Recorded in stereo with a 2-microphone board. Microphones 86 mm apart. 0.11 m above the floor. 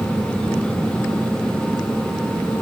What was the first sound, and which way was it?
Only background noise.